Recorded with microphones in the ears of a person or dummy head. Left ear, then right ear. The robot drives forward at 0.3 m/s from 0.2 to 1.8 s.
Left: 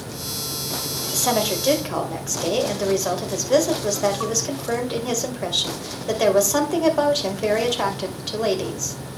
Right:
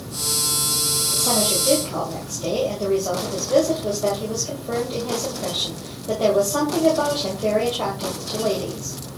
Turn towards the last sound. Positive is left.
turn(degrees=65)  # may be behind; listen again after turning